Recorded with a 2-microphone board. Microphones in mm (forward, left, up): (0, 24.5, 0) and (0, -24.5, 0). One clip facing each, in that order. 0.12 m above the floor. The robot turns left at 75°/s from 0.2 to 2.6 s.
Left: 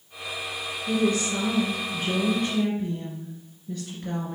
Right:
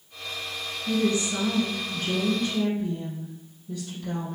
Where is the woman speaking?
110° right, 1.8 m; by 4.4 s 120° left, 1.8 m.